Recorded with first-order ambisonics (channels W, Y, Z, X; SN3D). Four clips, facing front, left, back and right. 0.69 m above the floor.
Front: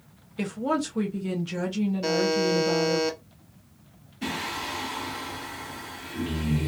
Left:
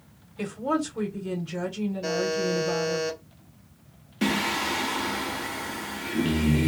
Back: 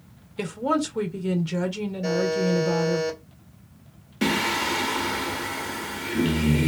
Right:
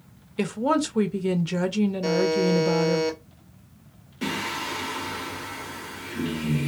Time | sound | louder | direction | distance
0.4 | a woman speaking | right 4 dB, back 2 dB | 105° right | 0.7 m
2.0 | a buzzer | right 3 dB, back 2 dB | 15° right | 1.6 m
4.2 | singing | left 3 dB, back 8 dB | 155° left | 0.7 m